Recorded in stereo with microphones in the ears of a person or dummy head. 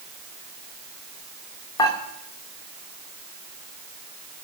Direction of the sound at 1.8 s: 25° left (ahead or behind).